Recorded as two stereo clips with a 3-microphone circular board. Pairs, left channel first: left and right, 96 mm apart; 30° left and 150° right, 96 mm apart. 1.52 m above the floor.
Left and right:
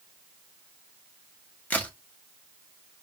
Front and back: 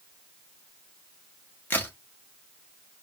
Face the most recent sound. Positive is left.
turn(degrees=55)